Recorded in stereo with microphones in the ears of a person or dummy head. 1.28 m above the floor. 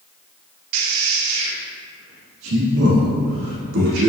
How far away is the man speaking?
About 0.9 m.